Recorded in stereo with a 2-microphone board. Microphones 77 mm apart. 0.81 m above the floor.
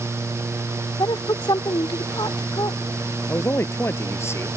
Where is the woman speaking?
75° left (ahead or behind); by 2.8 s 70° left (ahead or behind).